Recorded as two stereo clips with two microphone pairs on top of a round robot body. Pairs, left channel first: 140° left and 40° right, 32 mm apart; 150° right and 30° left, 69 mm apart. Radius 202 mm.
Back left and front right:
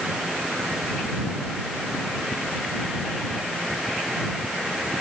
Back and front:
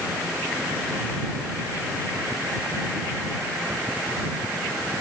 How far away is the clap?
I don't hear a clap.